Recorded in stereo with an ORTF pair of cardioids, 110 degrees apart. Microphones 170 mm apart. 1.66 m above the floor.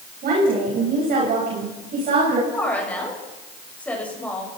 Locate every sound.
0.2 s a woman speaking: 60° right, 10 m; by 2.4 s 55° right, 10.5 m
2.5 s a woman speaking: 10° left, 8.5 m